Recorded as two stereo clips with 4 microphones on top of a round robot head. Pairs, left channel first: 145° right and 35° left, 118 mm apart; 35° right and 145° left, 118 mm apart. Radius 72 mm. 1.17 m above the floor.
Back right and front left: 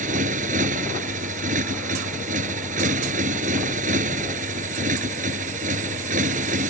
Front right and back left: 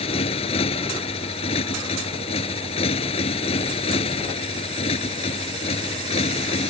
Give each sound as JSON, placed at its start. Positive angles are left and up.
{"t": 0.0, "sound": "a motorcycle", "azimuth_deg": 10}